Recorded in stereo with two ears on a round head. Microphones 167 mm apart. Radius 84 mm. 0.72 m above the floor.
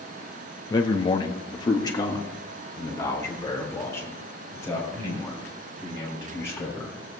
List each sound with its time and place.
0.7 s a man speaking: 20° left (ahead or behind), 0.8 m; by 6.9 s 15° left (ahead or behind), 7 m